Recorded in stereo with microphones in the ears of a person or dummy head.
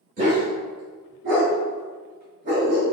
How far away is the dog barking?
About 1.0 m.